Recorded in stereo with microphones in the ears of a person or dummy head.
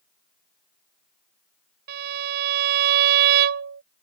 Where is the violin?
55° right (ahead or behind).